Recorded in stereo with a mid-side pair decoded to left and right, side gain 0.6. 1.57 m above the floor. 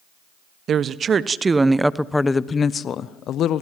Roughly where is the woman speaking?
Ahead right.